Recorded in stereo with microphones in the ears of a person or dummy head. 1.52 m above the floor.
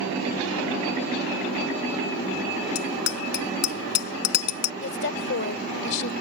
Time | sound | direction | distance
2.8 | a bicycle bell | 55° left (ahead or behind) | ?
4.8 | a woman speaking | 65° left (ahead or behind) | ?